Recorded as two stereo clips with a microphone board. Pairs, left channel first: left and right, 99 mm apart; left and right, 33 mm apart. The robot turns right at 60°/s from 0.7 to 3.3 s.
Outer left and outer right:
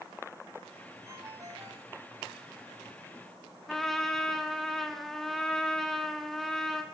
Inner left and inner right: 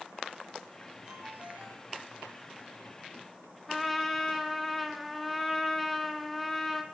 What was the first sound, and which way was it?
A ringtone, 145° right.